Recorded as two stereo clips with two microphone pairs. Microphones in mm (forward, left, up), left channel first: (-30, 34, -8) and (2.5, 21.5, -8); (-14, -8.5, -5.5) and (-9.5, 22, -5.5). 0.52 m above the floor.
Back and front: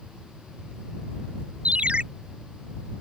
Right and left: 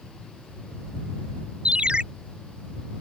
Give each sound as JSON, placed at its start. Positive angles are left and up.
{"t": 1.6, "sound": "a ringtone", "azimuth_deg": 30}